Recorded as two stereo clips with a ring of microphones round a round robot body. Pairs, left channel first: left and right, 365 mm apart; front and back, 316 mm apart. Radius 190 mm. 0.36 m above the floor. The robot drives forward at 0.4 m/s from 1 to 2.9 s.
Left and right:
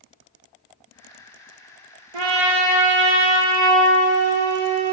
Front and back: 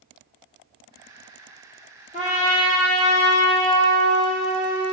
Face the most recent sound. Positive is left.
turn(degrees=-80)